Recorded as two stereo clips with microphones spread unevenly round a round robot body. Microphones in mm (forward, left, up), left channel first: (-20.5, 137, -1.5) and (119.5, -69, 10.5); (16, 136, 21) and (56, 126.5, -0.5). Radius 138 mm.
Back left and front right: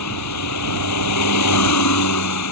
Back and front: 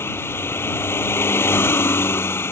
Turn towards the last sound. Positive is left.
turn(degrees=160)